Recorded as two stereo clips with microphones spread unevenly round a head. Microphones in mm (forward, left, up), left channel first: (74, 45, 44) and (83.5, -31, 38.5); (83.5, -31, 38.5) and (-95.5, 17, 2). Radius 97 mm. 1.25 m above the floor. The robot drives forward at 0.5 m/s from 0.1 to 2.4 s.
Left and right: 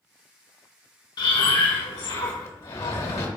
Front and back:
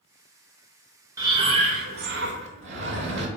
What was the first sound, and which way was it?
Breathing, 85° left.